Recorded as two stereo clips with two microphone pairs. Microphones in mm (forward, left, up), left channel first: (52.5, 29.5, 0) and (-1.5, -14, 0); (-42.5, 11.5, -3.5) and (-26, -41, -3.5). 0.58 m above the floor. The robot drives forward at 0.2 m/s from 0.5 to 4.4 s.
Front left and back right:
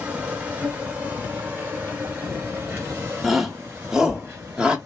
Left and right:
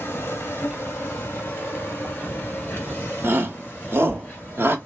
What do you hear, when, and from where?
0.0 s an insect: 150° left, 0.9 m; by 4.9 s 165° left, 1.6 m
3.2 s a shout: 50° right, 1.0 m; by 4.8 s 70° right, 0.9 m